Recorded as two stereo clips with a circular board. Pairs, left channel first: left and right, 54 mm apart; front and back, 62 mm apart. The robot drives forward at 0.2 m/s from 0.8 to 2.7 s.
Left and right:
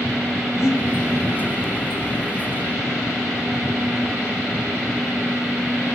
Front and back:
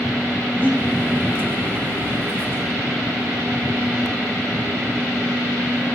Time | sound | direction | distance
0.6 | breathing | 120° left | 1.7 m